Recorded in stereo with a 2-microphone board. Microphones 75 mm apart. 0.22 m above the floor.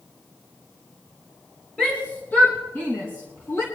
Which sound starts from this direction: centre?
A shout, at 1.8 s.